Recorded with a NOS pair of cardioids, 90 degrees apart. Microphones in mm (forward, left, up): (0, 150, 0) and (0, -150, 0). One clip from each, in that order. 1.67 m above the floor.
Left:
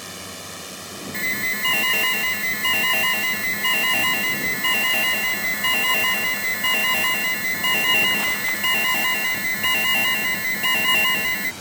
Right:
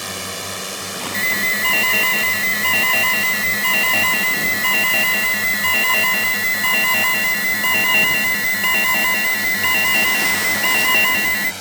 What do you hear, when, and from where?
0.0 s a drone: 60° right; by 11.6 s 50° right
1.1 s an alarm: 25° right